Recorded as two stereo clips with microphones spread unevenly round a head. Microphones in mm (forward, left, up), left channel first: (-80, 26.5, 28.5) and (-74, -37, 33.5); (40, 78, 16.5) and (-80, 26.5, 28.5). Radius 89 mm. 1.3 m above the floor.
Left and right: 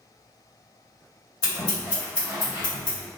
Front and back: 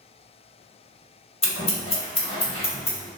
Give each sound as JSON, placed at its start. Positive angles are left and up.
{"t": 1.4, "sound": "scissors", "azimuth_deg": 70, "distance_m": 1.5}